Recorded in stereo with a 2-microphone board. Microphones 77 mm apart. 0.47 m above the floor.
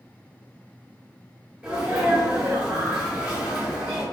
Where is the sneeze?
15° right (ahead or behind), 1.2 m.